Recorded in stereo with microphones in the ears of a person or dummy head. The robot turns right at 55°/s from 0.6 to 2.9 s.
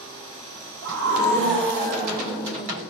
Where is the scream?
100° right, 4.5 m; by 2.8 s 10° left, 4.5 m.